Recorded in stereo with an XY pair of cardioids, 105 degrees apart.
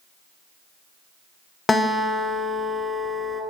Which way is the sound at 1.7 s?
25° left.